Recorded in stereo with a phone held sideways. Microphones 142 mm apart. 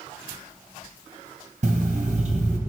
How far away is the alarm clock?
About 1.2 m.